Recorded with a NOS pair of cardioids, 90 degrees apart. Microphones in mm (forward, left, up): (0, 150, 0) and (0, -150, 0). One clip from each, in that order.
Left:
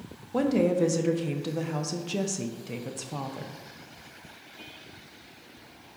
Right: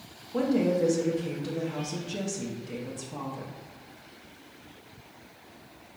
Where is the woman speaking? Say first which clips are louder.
Left 1 dB; 25° left, 0.5 m.